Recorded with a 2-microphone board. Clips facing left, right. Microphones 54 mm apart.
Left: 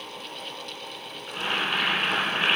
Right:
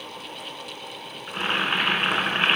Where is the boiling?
35° right (ahead or behind), 1.5 m.